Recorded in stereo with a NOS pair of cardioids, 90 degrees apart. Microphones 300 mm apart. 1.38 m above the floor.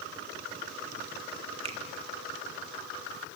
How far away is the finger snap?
About 2.0 m.